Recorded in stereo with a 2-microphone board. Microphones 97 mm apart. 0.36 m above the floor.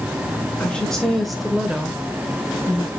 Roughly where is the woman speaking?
Centre.